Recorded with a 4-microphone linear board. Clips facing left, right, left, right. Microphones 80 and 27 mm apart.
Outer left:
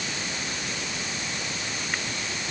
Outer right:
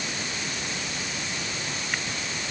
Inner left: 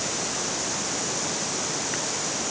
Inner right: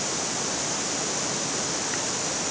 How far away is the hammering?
No hammering in this recording.